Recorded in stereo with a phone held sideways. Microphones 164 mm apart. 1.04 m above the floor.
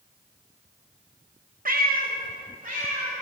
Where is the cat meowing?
60° right (ahead or behind), 0.6 m; by 3.1 s 55° right (ahead or behind), 2 m.